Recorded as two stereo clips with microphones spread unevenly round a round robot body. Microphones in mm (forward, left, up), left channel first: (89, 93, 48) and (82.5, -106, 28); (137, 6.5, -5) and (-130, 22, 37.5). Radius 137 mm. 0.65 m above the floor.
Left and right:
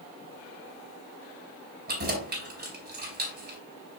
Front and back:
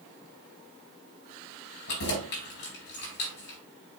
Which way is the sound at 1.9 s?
55° right.